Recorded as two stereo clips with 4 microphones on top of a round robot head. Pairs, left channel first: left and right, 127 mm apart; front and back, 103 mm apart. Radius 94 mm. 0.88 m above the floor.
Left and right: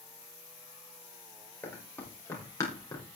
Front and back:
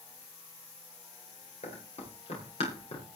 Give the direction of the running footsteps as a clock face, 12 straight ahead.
11 o'clock.